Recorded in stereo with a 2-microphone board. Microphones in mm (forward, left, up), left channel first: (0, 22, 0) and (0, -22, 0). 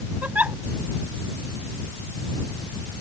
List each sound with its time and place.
0.2 s a giggle: 35° right (ahead or behind)